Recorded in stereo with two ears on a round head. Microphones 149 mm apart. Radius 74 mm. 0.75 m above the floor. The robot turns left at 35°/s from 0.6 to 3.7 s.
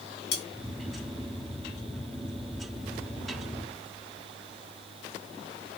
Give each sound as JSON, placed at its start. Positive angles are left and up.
{"t": 0.3, "sound": "cutlery clinking", "side_deg": 70, "distance_m": 1.0}